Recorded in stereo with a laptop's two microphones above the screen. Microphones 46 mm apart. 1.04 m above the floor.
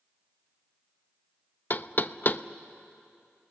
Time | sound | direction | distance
1.7 | knocking | 40° left (ahead or behind) | 0.5 m